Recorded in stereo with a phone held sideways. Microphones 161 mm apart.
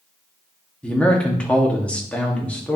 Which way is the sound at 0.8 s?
10° left (ahead or behind).